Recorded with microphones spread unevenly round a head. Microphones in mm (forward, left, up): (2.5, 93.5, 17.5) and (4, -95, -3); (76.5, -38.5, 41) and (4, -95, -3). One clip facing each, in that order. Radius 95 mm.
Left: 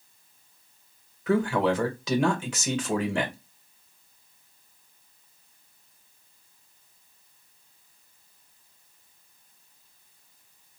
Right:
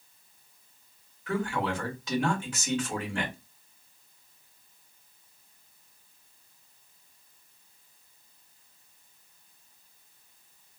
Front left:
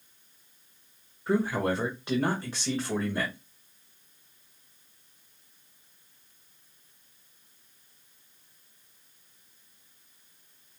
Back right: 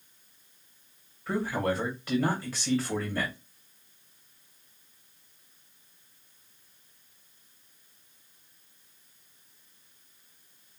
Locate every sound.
1.3 s a man speaking: 120° left, 1.5 m